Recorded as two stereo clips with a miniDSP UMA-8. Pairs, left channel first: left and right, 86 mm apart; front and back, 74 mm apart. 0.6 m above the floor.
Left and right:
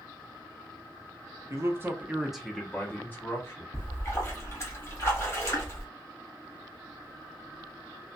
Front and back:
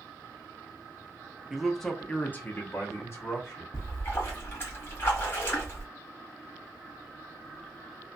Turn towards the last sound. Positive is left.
turn(degrees=45)